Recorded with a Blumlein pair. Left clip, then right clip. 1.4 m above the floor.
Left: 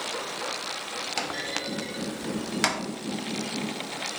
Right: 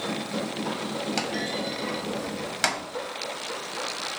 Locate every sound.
1.2 s a clunk: straight ahead, 0.7 m